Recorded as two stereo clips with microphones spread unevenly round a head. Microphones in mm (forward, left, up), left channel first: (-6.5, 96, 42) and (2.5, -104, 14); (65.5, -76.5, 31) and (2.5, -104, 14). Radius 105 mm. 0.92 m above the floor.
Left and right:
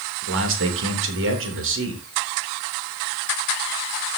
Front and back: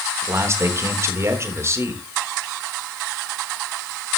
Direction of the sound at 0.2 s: 110° right.